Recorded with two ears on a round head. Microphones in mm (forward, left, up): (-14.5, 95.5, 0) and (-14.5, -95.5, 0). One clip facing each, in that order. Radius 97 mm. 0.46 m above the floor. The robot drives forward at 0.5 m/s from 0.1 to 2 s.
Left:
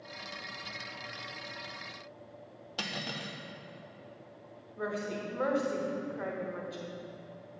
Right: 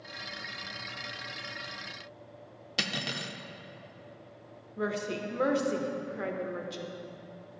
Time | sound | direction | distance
2.8 | cutlery clinking | 25° right (ahead or behind) | 0.5 m
4.8 | a woman speaking | 35° right (ahead or behind) | 1.0 m